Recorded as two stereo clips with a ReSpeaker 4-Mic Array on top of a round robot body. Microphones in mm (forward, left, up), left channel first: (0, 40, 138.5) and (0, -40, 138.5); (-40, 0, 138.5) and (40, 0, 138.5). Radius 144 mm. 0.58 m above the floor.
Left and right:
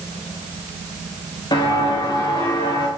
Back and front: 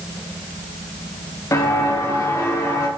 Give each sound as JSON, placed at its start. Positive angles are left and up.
{"t": 1.5, "sound": "footsteps", "azimuth_deg": 125, "distance_m": 7.5}